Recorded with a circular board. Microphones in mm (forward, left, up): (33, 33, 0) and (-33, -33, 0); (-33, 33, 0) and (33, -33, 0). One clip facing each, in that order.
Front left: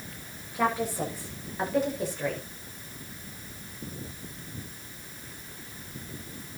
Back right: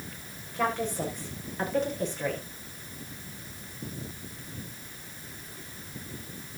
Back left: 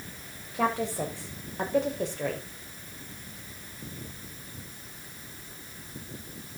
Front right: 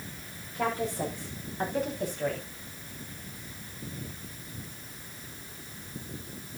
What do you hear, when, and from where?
0.5 s a woman speaking: 130° left, 8.5 m